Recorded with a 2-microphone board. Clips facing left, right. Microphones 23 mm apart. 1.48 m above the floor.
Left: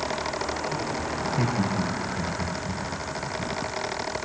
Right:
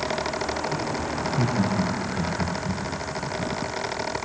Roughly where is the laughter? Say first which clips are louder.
Right 2 dB; left.